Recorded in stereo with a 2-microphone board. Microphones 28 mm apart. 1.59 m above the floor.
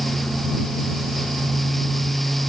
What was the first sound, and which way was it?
Only background noise.